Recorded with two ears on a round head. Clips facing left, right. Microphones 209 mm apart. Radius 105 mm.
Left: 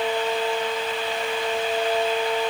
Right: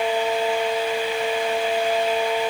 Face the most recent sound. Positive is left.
No sound to turn to.